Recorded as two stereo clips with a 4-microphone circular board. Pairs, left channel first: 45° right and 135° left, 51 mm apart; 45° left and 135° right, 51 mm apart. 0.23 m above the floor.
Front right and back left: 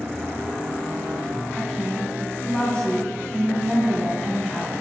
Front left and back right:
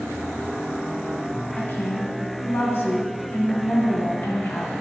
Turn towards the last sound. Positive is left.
turn(degrees=30)